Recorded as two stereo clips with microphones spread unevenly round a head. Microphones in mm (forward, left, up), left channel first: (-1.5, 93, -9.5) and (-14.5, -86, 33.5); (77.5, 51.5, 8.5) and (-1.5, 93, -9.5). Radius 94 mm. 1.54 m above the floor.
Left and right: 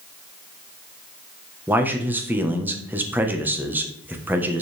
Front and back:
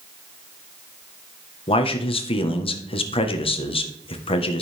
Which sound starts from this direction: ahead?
A man speaking, at 1.7 s.